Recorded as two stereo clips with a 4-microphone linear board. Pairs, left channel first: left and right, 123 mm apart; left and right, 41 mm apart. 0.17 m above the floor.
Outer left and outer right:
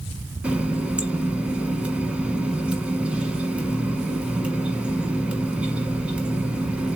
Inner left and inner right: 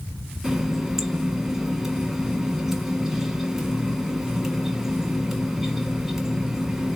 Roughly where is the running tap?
Centre.